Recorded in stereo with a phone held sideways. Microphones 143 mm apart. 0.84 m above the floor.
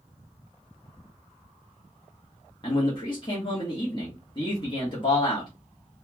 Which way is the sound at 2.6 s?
35° left (ahead or behind).